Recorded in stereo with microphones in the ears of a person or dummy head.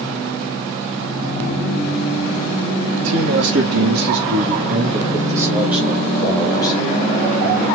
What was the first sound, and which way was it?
A man speaking, 70° right (ahead or behind).